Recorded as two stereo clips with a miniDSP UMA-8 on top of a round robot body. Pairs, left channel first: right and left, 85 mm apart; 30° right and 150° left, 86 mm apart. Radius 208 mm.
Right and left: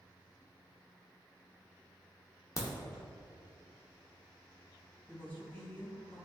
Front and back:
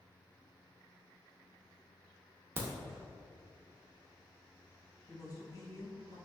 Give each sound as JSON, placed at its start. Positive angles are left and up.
{"t": 2.6, "sound": "a crack", "azimuth_deg": -145, "distance_m": 0.7}
{"t": 5.1, "sound": "a woman speaking", "azimuth_deg": -30, "distance_m": 1.4}